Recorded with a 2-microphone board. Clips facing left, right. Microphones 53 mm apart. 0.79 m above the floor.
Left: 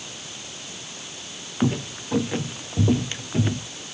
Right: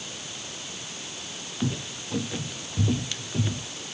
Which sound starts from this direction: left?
Footsteps, at 1.6 s.